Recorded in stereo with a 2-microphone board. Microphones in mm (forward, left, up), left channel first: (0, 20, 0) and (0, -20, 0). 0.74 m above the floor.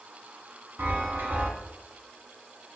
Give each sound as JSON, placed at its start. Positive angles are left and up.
{"t": 0.8, "sound": "a chime", "side_deg": -60, "distance_m": 1.7}